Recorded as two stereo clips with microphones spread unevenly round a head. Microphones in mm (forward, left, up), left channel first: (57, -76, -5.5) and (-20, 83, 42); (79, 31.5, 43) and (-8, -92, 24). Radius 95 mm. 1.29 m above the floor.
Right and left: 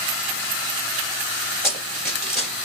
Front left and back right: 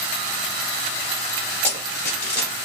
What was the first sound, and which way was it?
Running footsteps, 90° left.